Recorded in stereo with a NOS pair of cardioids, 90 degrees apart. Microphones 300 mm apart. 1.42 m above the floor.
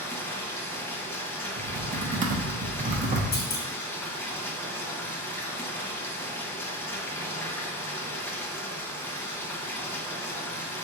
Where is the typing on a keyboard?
25° right, 1.0 m.